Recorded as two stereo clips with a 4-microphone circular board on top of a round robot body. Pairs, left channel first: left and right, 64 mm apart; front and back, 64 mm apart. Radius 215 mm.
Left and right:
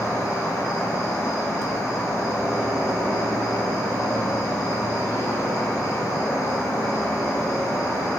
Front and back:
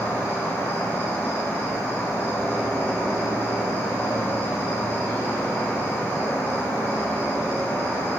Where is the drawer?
I don't hear a drawer.